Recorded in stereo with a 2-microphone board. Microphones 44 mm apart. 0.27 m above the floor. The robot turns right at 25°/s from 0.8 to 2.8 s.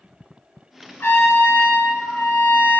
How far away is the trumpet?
About 0.6 m.